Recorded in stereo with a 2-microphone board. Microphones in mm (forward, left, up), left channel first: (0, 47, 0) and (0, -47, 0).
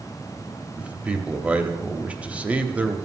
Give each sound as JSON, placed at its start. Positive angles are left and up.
{"t": 0.8, "sound": "a man speaking", "side_deg": -15, "distance_m": 1.0}